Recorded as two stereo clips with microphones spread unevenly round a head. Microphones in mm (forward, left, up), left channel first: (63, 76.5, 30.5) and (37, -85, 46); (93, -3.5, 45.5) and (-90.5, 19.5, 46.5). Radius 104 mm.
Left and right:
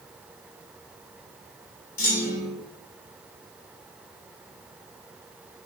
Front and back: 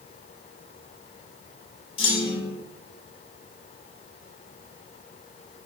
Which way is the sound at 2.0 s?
55° left.